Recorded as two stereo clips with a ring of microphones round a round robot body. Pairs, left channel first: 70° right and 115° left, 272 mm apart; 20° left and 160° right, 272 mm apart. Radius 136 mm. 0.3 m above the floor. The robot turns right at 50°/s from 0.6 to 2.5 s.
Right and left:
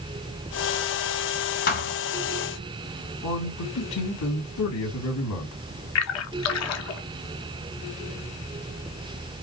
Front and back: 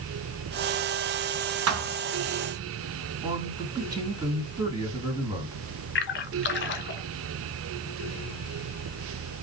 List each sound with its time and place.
1.7 s a thud: 125° right, 1.2 m; by 2.0 s 110° right, 1.2 m
3.2 s a man speaking: 85° right, 3 m
6.0 s a splash: 30° right, 0.9 m